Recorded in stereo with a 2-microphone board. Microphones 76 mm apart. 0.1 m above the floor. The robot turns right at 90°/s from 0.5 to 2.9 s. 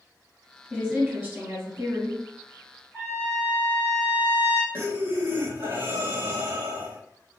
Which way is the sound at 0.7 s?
10° right (ahead or behind).